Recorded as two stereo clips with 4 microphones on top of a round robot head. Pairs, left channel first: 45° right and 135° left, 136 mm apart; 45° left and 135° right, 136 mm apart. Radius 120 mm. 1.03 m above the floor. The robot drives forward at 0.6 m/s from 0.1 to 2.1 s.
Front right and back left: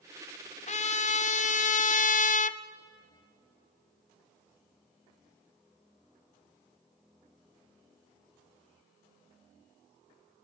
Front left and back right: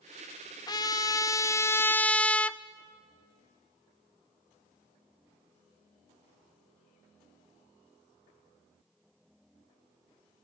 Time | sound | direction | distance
0.7 | a trumpet | 15° right | 1.5 m